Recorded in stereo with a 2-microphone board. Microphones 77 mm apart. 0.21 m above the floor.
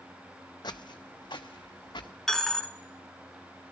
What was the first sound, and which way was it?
Footsteps, 60° left (ahead or behind).